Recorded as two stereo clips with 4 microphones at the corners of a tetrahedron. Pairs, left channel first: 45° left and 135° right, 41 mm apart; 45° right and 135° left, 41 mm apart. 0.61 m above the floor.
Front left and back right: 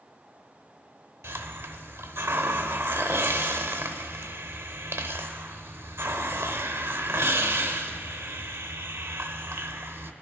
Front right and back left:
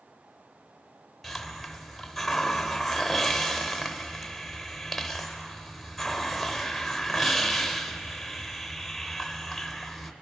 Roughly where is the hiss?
Behind right.